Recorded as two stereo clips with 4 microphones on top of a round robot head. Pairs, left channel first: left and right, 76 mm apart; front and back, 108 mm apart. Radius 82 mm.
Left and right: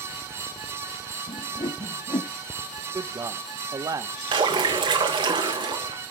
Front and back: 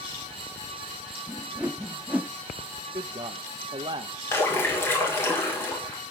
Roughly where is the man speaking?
Behind right.